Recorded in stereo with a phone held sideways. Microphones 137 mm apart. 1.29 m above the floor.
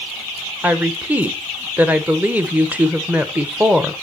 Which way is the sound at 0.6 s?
10° right (ahead or behind).